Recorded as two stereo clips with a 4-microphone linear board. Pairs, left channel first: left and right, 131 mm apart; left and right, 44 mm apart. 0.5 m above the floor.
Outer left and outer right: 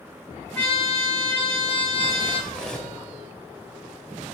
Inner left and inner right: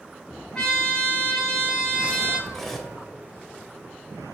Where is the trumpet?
10° left (ahead or behind), 3 m.